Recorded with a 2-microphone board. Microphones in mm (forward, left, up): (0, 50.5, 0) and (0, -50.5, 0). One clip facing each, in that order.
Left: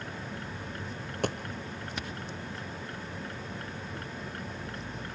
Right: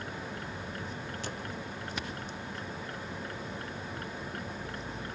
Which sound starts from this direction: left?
A dropped coin, at 1.2 s.